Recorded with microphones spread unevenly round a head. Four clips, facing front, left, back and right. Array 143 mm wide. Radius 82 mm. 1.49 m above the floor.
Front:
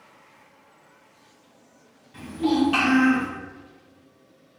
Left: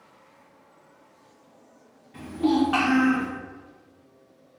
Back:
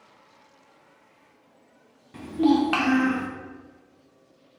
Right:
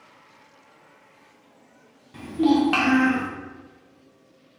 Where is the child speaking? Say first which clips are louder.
Right 3 dB, back 2 dB; straight behind, 0.7 m; by 3.3 s 140° right, 1.2 m.